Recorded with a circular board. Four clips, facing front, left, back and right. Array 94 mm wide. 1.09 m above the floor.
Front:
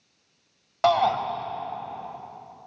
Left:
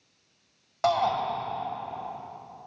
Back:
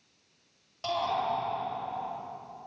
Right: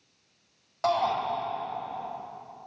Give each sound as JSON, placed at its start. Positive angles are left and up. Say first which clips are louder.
{"t": 0.8, "sound": "a shout", "louder": "left 1 dB, front 10 dB", "azimuth_deg": 10, "distance_m": 4.5}